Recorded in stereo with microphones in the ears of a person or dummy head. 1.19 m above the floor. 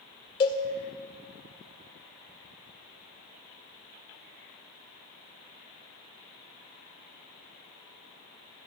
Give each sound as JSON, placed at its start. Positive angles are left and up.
{"t": 0.4, "sound": "a cowbell", "side_deg": 30, "distance_m": 0.8}